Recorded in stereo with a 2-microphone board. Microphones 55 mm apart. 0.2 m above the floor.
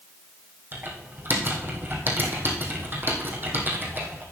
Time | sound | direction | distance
0.7 | typing on a keyboard | 40° right (ahead or behind) | 2 m